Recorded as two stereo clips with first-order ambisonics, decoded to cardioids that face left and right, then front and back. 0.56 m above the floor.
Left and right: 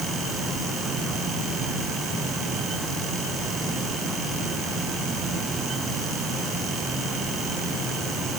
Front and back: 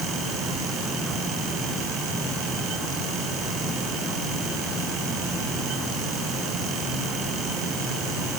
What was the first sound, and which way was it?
Only background noise.